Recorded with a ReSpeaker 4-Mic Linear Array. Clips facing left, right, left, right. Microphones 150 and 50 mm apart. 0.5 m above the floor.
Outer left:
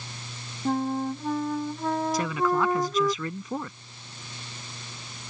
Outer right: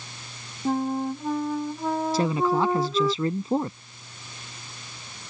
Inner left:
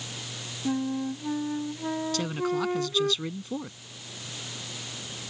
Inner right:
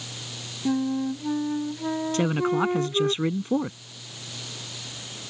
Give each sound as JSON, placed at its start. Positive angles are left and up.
{"t": 0.7, "sound": "a flute", "side_deg": -5}
{"t": 2.1, "sound": "a man speaking", "side_deg": -30}